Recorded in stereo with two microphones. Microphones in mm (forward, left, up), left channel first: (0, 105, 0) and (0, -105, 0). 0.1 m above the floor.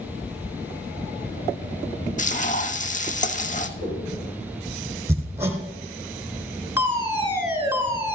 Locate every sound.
2.2 s frying: 35° left (ahead or behind), 0.9 m
3.8 s a whoosh: 25° left (ahead or behind), 5.5 m
5.1 s hammering: 10° right (ahead or behind), 2.5 m
6.8 s a fire alarm: 10° right (ahead or behind), 2.5 m